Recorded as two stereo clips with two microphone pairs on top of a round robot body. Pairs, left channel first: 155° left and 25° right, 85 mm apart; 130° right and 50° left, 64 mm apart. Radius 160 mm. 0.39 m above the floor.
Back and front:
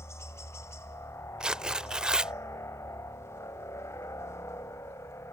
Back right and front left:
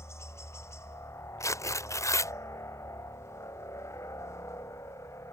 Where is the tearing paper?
105° right.